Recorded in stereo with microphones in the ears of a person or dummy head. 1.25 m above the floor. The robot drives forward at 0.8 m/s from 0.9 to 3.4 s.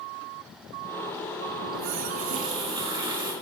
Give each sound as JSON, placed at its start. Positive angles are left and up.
{"t": 1.6, "sound": "a running tap", "side_deg": -70, "distance_m": 0.8}